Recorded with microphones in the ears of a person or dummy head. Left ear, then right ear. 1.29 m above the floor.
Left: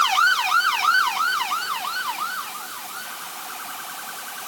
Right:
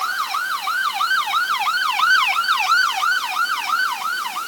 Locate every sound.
Only background noise.